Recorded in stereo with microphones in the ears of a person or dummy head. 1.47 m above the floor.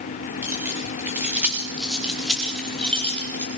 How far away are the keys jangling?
About 4 m.